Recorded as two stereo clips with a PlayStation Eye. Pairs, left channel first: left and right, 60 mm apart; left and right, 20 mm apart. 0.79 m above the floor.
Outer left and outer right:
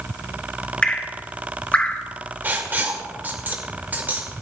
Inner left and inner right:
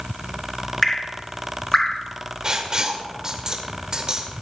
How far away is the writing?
About 1.8 m.